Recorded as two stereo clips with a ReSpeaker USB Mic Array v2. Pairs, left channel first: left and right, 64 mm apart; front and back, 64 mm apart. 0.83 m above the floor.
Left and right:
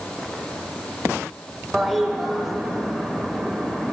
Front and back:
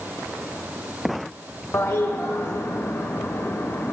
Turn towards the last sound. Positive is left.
turn(degrees=0)